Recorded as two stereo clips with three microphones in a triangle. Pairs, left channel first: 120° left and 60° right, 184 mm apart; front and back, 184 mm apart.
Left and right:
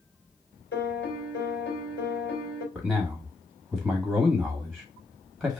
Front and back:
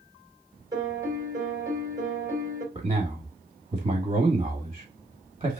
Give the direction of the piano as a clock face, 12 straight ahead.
8 o'clock.